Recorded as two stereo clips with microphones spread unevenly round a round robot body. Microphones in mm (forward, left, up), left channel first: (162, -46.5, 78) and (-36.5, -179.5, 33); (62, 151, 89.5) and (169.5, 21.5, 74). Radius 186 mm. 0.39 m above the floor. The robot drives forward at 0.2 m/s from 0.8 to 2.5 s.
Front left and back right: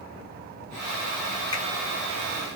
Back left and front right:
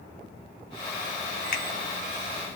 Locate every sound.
1.5 s a finger snap: 115° left, 0.8 m